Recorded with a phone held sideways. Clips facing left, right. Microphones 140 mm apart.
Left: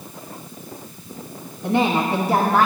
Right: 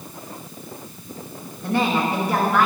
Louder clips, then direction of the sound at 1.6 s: Left 2 dB; 15° left (ahead or behind).